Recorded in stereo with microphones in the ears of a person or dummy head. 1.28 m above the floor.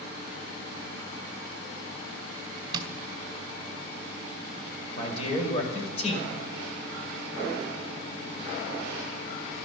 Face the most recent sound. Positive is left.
turn(degrees=35)  # may be behind; listen again after turning